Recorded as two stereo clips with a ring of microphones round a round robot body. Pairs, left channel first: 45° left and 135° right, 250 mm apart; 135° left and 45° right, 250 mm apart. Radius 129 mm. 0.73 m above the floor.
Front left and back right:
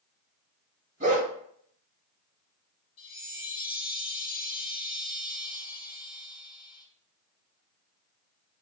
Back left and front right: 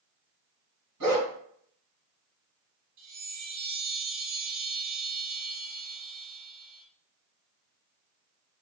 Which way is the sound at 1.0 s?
75° right.